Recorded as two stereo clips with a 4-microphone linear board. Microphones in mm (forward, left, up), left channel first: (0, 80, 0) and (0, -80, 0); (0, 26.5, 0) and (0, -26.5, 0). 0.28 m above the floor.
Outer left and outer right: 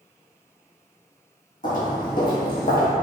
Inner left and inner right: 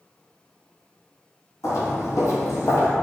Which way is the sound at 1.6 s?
60° left (ahead or behind).